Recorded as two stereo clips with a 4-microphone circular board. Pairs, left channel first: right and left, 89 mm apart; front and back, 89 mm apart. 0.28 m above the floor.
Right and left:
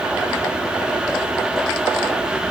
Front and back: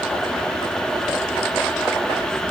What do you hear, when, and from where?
Only background noise.